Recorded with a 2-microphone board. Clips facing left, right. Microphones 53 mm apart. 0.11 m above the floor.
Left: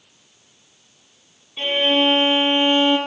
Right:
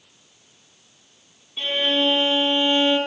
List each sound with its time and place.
1.6 s a violin: 35° left (ahead or behind), 0.6 m